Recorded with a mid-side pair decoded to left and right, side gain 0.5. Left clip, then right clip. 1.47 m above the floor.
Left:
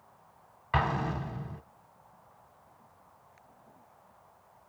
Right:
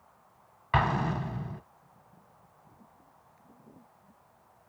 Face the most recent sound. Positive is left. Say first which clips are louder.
# right 2 dB
turn(degrees=-15)